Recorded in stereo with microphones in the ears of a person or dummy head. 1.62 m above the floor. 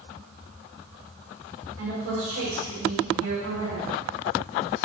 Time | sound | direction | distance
1.8 | a woman speaking | 80° right | 2.5 m